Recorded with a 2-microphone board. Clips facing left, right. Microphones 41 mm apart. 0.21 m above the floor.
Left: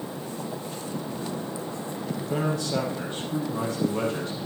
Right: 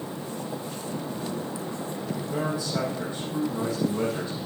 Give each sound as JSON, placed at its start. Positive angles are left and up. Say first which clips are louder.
{"t": 2.2, "sound": "a man speaking", "louder": "left 2 dB", "side_deg": 75, "distance_m": 5.5}